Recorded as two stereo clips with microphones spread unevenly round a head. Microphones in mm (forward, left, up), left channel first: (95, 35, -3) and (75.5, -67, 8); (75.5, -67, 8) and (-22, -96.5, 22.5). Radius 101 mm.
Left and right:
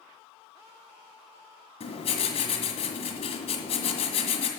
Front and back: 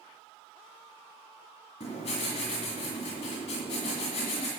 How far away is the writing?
About 1.7 m.